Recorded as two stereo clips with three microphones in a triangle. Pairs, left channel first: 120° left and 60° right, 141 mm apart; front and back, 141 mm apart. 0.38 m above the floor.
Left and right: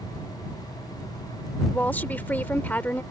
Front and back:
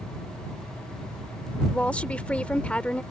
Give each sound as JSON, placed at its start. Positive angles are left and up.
{"t": 1.7, "sound": "a woman speaking", "azimuth_deg": 65}